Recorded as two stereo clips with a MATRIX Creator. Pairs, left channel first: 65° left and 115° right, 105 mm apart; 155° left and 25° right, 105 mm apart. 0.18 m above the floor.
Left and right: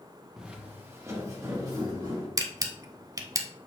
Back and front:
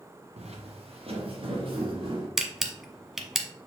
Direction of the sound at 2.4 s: 105° right.